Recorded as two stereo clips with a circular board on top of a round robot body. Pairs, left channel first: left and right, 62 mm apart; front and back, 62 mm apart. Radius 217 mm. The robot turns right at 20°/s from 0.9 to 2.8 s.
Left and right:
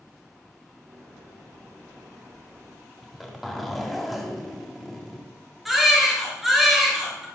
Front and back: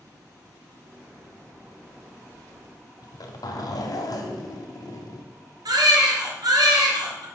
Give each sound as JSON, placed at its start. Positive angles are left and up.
{"t": 3.0, "sound": "a zipper", "azimuth_deg": 0, "distance_m": 1.9}
{"t": 5.7, "sound": "a baby crying", "azimuth_deg": 180, "distance_m": 3.0}